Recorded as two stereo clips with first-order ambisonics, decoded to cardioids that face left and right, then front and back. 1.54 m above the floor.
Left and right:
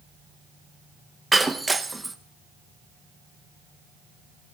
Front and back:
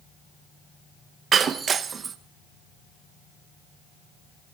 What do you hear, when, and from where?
1.3 s breaking glass: 165° right, 0.7 m